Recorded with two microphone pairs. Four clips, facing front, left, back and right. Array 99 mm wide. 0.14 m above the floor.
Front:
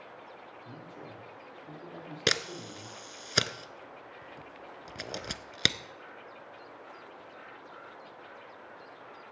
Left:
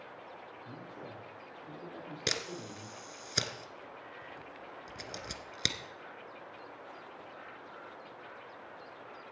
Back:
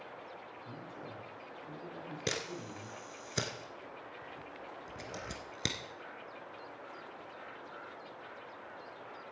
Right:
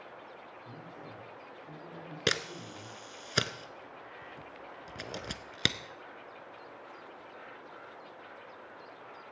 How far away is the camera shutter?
About 0.6 m.